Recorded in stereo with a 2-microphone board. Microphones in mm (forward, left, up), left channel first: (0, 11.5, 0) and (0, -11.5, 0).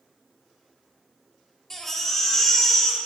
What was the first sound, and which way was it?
A baby crying, 10° left (ahead or behind).